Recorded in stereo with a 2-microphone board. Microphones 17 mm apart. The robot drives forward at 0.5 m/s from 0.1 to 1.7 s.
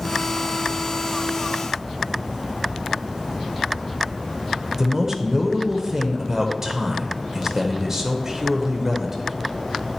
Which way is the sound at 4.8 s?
30° right (ahead or behind).